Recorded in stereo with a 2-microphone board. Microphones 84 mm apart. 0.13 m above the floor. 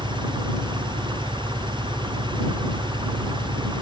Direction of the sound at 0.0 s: 65° right (ahead or behind).